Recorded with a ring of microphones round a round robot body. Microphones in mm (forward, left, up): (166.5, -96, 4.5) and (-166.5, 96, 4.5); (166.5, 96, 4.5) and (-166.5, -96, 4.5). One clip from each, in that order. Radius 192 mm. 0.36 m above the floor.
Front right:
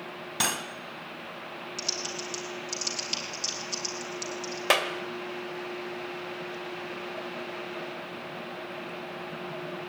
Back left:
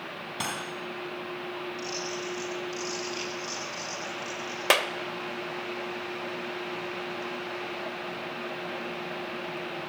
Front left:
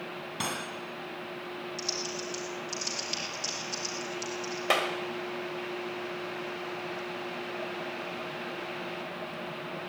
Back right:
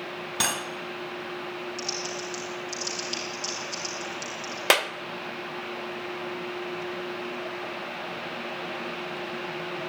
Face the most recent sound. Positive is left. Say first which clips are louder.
# back left 1 dB, back right 5 dB
turn(degrees=-130)